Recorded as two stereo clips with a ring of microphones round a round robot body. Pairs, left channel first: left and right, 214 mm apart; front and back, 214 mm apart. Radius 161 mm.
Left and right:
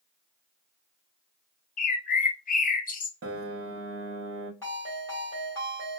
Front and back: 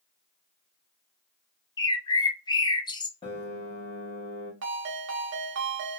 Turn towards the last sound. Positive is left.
turn(degrees=170)